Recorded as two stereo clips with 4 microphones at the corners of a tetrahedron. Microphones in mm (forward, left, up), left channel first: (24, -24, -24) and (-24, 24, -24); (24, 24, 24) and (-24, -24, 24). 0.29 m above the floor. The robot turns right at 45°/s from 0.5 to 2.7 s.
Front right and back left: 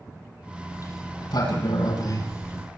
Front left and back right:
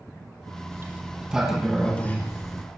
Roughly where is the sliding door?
Right.